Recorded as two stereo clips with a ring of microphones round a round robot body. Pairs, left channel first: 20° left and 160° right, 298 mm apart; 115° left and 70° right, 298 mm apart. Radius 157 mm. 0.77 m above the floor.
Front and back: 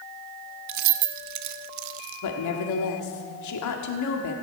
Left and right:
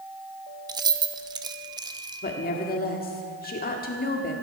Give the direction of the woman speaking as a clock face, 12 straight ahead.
10 o'clock.